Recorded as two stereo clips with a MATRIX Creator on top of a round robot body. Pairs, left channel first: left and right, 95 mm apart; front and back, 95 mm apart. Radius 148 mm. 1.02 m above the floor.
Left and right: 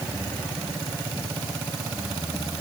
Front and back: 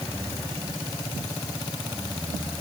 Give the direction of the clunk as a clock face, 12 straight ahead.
No clunk in this recording.